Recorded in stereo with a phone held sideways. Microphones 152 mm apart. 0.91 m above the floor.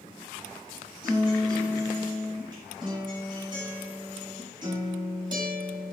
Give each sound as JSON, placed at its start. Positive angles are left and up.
{"t": 1.0, "sound": "a guitar", "side_deg": -30, "distance_m": 4.5}